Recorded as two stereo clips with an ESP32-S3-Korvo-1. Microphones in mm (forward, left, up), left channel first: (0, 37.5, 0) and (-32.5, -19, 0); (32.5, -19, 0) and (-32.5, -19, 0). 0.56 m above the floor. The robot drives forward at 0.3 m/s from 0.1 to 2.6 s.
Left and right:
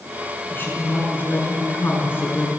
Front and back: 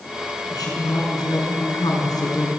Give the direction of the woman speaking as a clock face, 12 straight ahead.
12 o'clock.